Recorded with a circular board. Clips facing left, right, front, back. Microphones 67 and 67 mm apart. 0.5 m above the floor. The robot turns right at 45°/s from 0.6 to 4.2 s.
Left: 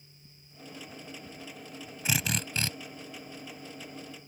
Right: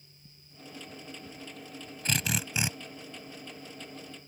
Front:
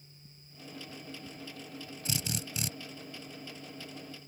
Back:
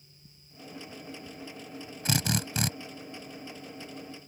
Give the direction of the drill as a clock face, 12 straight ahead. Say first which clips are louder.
Even, back 9 dB; 6 o'clock.